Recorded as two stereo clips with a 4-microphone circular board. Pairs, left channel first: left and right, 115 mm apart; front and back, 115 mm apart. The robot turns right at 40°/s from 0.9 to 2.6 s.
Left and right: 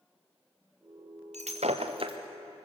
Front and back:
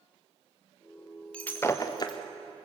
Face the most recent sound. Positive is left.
turn(degrees=-30)